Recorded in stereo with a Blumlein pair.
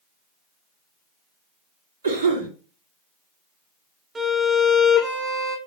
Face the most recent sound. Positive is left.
turn(degrees=-15)